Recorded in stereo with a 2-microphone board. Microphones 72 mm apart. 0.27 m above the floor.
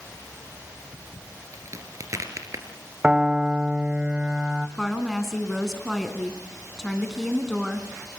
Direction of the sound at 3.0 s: 15° right (ahead or behind).